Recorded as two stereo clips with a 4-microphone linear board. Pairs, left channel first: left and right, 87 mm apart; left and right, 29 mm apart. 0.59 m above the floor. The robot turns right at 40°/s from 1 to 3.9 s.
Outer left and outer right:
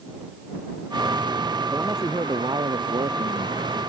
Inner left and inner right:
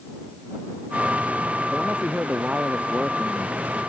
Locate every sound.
1.7 s a man speaking: 155° right; by 3.8 s 70° right